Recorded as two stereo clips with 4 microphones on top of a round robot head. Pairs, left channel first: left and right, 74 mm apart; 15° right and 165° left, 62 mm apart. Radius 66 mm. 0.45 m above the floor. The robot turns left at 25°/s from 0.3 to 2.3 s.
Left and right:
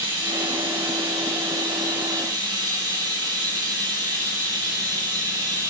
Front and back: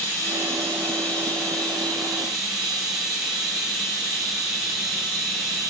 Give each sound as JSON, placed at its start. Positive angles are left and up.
{"t": 0.0, "sound": "running water", "azimuth_deg": -65, "distance_m": 5.0}